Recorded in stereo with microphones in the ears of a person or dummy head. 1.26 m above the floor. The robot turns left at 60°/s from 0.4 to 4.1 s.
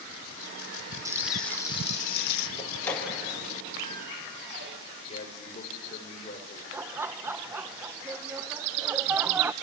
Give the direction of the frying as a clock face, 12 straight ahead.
5 o'clock.